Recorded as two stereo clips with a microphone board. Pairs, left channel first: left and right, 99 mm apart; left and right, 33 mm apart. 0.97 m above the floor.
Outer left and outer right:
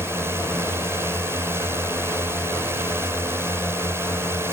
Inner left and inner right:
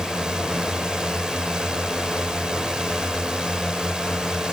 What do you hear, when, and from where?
0.0 s a drone: 25° right (ahead or behind)